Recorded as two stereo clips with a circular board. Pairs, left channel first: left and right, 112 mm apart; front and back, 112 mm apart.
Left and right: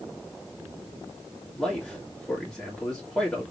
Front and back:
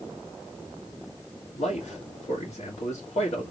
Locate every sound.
1.6 s a man speaking: 5° left, 2 m